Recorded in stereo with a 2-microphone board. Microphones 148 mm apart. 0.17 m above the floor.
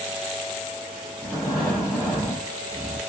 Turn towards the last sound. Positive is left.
turn(degrees=15)  # may be behind; listen again after turning